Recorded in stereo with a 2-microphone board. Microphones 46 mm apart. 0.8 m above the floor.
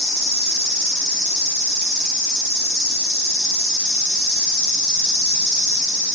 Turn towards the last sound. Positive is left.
turn(degrees=-15)  # may be behind; listen again after turning